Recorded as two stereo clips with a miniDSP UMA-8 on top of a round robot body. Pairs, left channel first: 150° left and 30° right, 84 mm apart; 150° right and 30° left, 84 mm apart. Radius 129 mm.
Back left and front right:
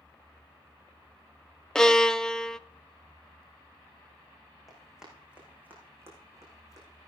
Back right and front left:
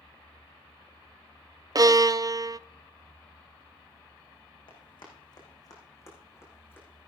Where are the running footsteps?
120° right, 5 m; by 7.1 s 75° right, 5.5 m.